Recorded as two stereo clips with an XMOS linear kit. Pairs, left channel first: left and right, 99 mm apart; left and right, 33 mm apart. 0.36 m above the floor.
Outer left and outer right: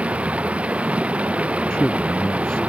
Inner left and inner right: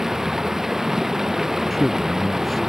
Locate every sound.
0.0 s running water: 15° right (ahead or behind)
1.7 s a man speaking: 10° left (ahead or behind)